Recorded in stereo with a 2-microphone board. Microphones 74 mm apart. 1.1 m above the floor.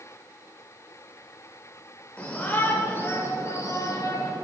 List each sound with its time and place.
2.2 s a shout: 15° left (ahead or behind), 5 m; by 4.3 s 50° left (ahead or behind), 4.5 m